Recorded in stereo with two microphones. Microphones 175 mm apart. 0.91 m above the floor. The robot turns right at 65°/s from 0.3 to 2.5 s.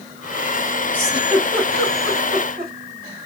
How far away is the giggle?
About 1.6 m.